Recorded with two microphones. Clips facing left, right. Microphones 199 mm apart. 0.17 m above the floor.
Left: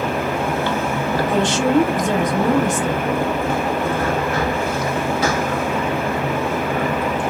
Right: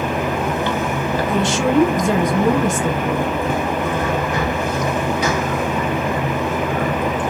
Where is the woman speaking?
5° right (ahead or behind), 1.0 m.